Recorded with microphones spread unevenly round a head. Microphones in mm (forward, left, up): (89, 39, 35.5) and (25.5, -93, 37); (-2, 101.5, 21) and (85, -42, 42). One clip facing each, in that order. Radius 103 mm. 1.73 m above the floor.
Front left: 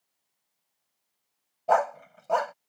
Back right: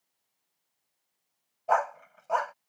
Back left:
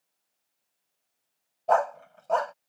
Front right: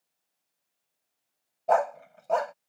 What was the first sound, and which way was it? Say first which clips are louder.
A dog barking: front left 3 dB, even; 15° left.